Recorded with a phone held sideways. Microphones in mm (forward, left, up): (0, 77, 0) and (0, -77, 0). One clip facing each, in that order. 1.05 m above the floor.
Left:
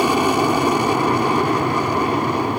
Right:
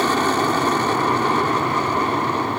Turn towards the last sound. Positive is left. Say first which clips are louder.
# left 3 dB
turn(degrees=10)  # may be behind; listen again after turning